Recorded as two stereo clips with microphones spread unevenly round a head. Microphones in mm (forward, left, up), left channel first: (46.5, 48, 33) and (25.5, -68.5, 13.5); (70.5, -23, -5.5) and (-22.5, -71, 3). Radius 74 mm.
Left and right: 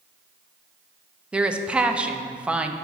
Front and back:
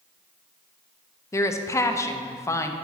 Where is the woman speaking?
25° right, 0.6 m.